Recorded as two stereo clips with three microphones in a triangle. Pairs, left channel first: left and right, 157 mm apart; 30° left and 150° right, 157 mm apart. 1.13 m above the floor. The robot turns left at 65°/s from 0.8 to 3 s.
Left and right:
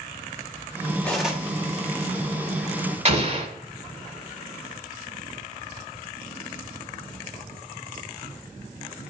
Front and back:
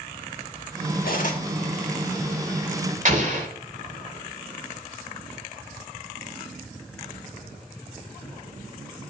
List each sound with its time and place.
1.0 s cutlery clinking: 10° left, 1.3 m; by 1.4 s 15° right, 1.3 m
3.0 s an explosion: 125° right, 1.5 m